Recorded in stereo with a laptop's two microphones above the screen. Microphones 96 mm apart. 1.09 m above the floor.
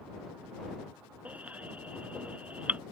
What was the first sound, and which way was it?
A baby crying, 15° right (ahead or behind).